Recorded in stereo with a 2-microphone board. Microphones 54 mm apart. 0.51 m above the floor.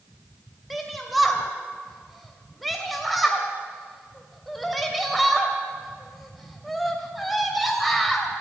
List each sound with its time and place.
0.7 s a shout: centre (ahead or behind), 2.5 m